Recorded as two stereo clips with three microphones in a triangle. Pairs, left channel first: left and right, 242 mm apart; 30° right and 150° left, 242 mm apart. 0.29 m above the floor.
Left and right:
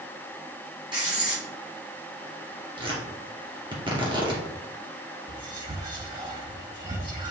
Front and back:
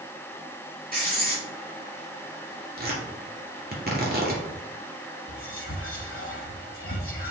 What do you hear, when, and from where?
0.9 s writing: 160° right, 3.5 m
2.8 s tearing paper: 160° right, 2.5 m
5.3 s whispering: 25° right, 2.5 m